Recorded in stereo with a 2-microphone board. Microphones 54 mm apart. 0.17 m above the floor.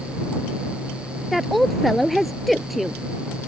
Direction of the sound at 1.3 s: Centre (ahead or behind).